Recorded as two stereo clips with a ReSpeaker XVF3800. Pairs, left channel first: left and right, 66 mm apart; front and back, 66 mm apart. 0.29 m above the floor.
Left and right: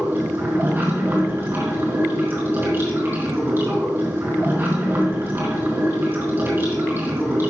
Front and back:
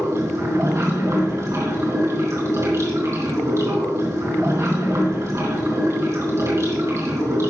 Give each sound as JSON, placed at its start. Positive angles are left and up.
{"t": 0.0, "sound": "running water", "azimuth_deg": -145, "distance_m": 3.5}